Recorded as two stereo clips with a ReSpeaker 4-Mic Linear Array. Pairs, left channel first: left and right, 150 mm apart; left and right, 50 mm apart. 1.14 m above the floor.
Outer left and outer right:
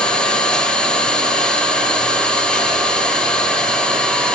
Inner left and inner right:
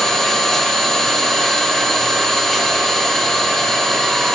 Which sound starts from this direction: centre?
An engine running, at 0.0 s.